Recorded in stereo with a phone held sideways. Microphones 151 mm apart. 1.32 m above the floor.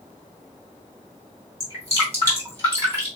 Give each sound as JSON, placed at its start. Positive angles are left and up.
{"t": 1.6, "sound": "dripping", "side_deg": -20, "distance_m": 3.0}